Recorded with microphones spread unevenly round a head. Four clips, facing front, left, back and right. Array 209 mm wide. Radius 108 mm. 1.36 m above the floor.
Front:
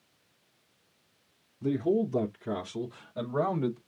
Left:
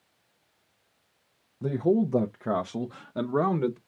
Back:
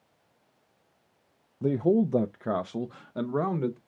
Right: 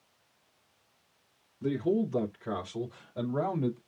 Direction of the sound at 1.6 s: 155° left.